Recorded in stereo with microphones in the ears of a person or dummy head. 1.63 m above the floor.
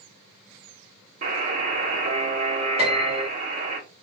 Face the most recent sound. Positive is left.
turn(degrees=-30)  # may be behind; listen again after turning